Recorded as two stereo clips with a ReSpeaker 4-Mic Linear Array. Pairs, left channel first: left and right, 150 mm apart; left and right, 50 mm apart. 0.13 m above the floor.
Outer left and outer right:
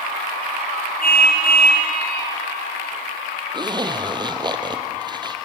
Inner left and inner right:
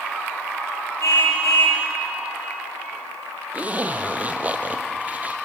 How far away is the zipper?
About 2 m.